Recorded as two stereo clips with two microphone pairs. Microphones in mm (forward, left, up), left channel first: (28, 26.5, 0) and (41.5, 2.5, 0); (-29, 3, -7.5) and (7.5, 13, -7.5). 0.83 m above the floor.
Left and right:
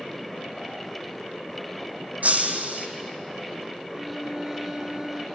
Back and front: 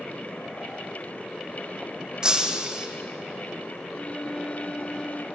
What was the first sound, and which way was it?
Breaking glass, 50° right.